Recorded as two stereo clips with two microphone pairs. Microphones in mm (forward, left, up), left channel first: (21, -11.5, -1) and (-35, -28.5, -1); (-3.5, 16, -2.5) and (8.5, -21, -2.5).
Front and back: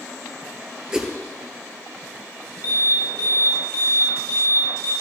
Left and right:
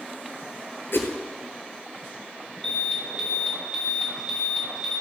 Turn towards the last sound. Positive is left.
turn(degrees=30)